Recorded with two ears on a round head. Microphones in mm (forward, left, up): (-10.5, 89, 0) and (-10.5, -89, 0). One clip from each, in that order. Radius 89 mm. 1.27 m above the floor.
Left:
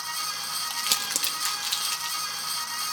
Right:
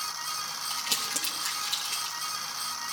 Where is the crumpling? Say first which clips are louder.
Left 3 dB; 35° left (ahead or behind), 1.5 m.